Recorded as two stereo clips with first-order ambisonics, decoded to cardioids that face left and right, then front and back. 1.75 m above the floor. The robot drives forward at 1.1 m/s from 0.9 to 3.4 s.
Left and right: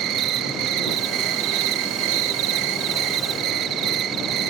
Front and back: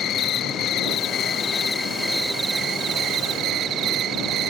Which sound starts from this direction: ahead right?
An insect, at 0.0 s.